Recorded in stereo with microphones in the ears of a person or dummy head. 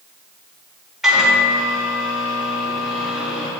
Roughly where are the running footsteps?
No running footsteps in this recording.